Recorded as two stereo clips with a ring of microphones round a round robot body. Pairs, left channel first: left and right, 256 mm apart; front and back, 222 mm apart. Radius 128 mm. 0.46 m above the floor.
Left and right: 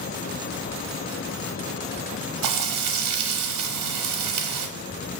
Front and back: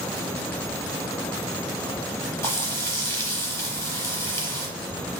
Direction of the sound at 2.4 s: 80° right.